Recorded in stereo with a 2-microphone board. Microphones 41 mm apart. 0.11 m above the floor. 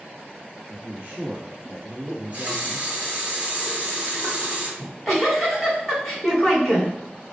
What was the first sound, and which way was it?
A man speaking, 30° right (ahead or behind).